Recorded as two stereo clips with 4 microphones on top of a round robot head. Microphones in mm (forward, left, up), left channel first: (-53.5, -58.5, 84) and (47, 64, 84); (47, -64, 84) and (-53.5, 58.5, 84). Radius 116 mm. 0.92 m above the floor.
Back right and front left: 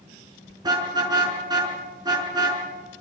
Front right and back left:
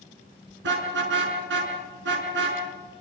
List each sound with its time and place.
0.6 s a car horn: 120° left, 5 m